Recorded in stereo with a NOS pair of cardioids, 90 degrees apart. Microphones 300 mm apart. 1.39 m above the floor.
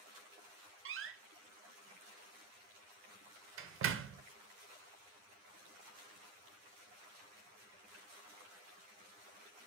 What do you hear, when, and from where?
0.8 s a door slam: 45° right, 0.5 m